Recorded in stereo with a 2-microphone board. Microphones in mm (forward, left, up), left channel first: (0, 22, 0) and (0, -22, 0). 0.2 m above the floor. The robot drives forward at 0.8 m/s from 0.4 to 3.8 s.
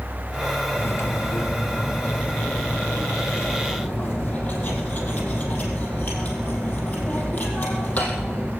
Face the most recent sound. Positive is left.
turn(degrees=30)  # may be behind; listen again after turning